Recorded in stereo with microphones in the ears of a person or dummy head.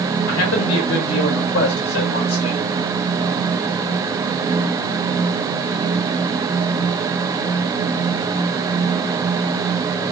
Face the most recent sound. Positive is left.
turn(degrees=85)